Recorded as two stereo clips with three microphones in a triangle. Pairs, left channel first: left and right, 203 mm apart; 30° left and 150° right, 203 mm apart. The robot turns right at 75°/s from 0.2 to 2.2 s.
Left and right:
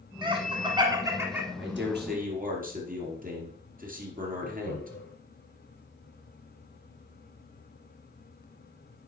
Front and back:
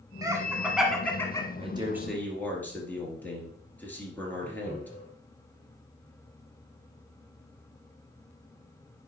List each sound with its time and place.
0.2 s laughter: 110° right, 1.2 m; by 1.5 s 15° right, 1.2 m
1.6 s a man speaking: 95° right, 2.5 m; by 4.9 s 50° right, 2.5 m
4.4 s laughter: 80° left, 2.5 m